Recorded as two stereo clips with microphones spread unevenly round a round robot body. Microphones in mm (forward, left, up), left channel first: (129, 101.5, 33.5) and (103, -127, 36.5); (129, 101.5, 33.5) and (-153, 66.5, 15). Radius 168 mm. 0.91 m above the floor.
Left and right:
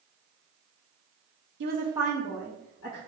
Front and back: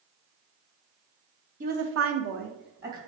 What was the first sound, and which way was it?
A woman speaking, 120° right.